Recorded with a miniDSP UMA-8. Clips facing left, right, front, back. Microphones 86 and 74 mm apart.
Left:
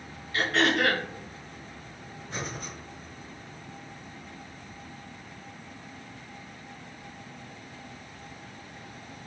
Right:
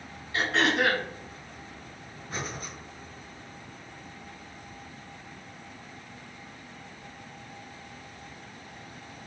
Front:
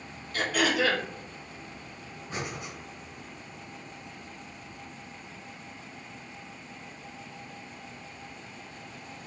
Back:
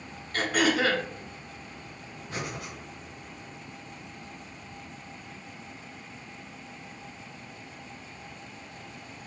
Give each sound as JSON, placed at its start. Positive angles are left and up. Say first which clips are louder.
{"t": 0.3, "sound": "throat clearing", "louder": "even, back 1 dB", "azimuth_deg": -150, "distance_m": 0.9}
{"t": 2.3, "sound": "breathing", "louder": "even, even", "azimuth_deg": -70, "distance_m": 2.0}